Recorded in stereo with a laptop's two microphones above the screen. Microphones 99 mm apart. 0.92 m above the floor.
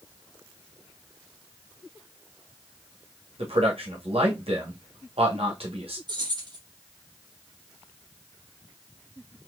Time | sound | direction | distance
3.4 | a man speaking | 75° right (ahead or behind) | 1.3 m
6.1 | keys jangling | 45° right (ahead or behind) | 1.4 m